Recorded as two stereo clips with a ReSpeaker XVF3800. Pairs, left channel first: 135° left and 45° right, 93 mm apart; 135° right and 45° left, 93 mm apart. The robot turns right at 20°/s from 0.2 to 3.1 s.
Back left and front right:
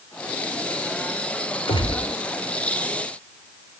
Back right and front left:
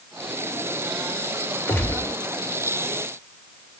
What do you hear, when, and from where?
1.7 s a gunshot: 155° left, 1.3 m; by 2.1 s 165° left, 1.3 m